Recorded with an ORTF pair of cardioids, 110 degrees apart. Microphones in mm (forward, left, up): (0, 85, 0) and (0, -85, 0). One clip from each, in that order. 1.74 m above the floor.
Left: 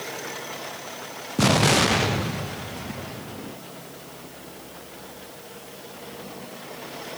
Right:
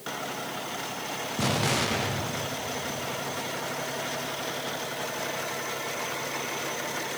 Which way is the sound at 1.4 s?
35° left.